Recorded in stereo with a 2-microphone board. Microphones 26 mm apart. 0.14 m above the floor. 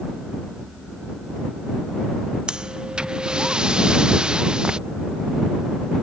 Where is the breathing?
35° right (ahead or behind).